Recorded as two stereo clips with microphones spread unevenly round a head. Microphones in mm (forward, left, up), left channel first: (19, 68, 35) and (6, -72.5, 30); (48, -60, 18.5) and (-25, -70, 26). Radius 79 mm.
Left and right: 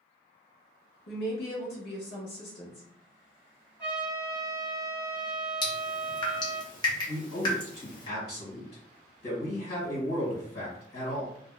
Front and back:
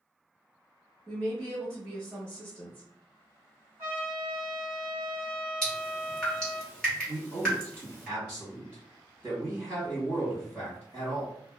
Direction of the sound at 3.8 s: 170° right.